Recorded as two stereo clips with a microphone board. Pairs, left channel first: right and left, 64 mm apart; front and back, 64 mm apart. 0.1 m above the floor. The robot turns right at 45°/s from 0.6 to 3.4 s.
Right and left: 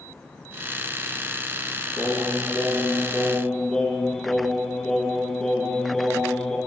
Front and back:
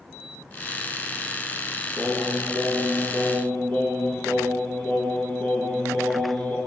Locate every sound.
2.0 s singing: 90° right, 1.4 m; by 6.6 s 25° right, 1.4 m